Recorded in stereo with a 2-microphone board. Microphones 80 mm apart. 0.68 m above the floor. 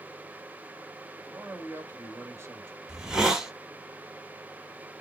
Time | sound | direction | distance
1.3 | a man speaking | 35° right (ahead or behind) | 1.2 m
2.9 | a hiss | 10° right (ahead or behind) | 0.9 m